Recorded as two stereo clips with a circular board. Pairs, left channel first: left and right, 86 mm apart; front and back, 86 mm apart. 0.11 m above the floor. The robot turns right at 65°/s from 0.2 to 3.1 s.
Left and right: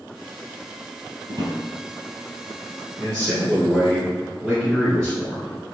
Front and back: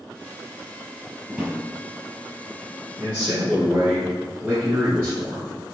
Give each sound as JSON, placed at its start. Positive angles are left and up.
{"t": 1.3, "sound": "a drawer", "azimuth_deg": -90, "distance_m": 1.3}
{"t": 3.0, "sound": "a man speaking", "azimuth_deg": 155, "distance_m": 1.6}